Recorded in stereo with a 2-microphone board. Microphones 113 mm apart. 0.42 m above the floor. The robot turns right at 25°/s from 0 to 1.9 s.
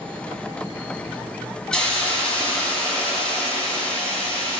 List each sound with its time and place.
1.7 s a hiss: 5° left (ahead or behind), 1.2 m; by 4.6 s 10° left (ahead or behind), 1.2 m